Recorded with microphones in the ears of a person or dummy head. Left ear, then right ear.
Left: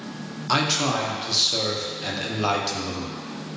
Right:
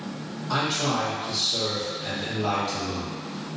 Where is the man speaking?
70° left (ahead or behind), 0.6 m.